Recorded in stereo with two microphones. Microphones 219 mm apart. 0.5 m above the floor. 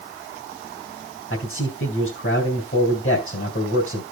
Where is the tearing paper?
No tearing paper in this recording.